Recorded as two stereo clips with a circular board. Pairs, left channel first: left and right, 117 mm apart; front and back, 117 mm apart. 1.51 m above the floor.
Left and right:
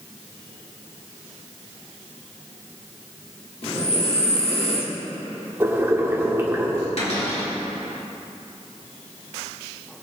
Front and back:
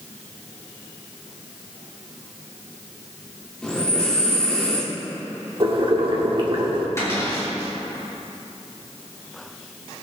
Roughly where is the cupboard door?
Ahead left.